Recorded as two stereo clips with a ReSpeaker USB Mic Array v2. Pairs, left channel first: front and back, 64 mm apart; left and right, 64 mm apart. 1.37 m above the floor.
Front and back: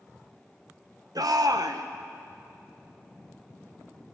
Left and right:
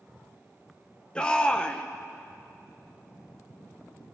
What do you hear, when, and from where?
1.1 s a shout: 165° left, 0.9 m